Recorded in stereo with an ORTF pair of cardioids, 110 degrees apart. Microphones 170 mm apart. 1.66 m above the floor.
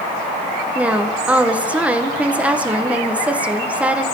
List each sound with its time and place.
0.8 s a woman speaking: 5° right, 1.4 m